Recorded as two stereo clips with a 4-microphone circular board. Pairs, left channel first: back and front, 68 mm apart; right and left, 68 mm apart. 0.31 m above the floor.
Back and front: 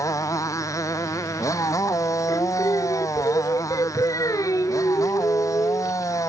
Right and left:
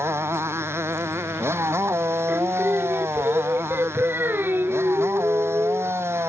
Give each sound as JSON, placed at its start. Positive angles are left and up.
{"t": 0.0, "sound": "a motorcycle", "azimuth_deg": 145}
{"t": 2.3, "sound": "singing", "azimuth_deg": 150}